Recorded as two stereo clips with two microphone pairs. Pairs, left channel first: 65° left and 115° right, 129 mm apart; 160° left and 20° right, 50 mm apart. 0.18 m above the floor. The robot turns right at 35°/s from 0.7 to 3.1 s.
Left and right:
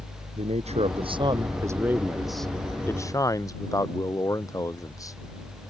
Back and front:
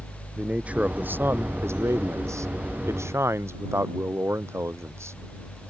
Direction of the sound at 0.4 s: 80° right.